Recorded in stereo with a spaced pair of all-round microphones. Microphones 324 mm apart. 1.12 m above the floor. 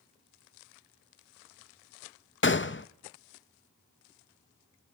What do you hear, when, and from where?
2.4 s a gunshot: 40° left (ahead or behind), 0.5 m